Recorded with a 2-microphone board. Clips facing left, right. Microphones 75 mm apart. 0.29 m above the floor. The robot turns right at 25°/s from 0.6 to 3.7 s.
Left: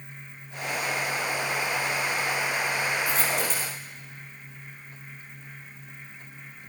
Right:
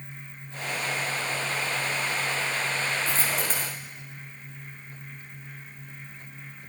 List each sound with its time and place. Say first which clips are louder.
3.1 s a dropped coin: left 1 dB; 30° right (ahead or behind), 8.5 m; by 3.8 s 45° right (ahead or behind), 8.5 m